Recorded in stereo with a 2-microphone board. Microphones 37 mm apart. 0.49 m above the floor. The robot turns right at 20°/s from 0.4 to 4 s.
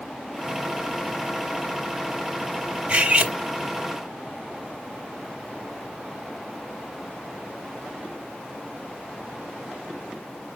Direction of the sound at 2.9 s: 40° right (ahead or behind).